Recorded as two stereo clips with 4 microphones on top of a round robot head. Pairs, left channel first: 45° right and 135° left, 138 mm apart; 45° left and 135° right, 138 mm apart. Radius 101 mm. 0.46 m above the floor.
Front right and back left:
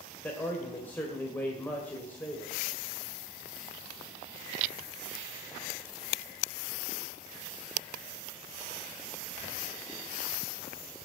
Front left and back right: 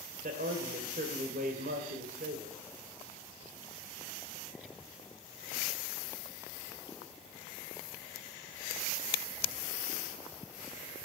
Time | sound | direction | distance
0.2 | a man speaking | 120° right | 2 m